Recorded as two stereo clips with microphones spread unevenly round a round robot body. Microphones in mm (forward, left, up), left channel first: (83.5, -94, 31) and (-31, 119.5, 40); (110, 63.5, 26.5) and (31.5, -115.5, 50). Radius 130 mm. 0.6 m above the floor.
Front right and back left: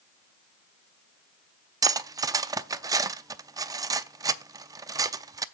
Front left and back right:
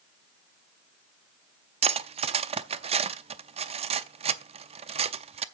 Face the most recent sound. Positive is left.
turn(degrees=-170)